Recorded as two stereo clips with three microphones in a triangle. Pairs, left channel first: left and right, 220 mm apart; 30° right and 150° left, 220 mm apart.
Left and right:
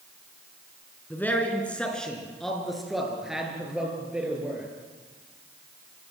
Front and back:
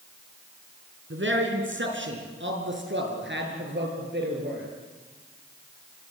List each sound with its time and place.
1.1 s a man speaking: 170° left, 4 m; by 4.7 s 175° right, 7 m